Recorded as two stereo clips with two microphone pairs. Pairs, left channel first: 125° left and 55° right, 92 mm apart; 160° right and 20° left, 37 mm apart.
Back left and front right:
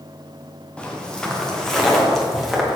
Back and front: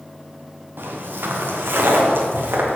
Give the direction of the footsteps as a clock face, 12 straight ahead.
10 o'clock.